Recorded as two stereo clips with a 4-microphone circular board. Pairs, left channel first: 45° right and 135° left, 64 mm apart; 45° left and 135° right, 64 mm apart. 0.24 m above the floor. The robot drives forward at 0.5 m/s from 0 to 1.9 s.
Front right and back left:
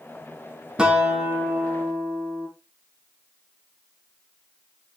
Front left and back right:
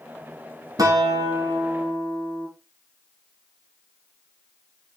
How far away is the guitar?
About 1.9 m.